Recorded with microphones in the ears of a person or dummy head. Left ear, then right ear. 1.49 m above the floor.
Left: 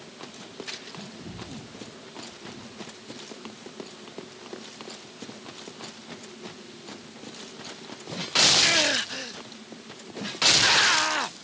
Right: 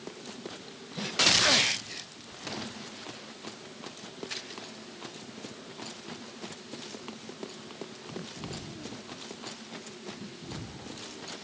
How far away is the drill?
No drill in this recording.